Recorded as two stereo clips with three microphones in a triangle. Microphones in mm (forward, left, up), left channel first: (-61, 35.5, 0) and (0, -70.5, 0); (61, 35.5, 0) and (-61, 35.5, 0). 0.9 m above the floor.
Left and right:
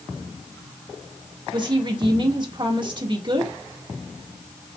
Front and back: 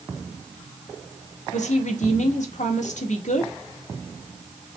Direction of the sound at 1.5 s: 10° right.